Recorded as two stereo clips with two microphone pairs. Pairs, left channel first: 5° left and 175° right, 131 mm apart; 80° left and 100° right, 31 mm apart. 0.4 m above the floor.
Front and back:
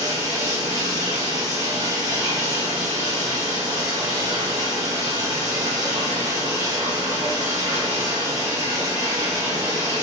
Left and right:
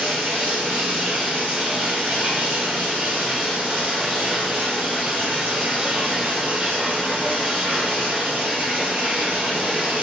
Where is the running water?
115° right, 6 m.